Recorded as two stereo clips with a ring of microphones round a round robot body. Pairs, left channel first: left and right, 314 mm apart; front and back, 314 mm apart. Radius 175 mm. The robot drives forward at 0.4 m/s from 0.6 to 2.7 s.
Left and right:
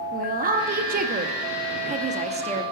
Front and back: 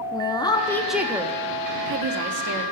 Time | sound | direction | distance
0.1 | a woman speaking | 65° right | 0.6 m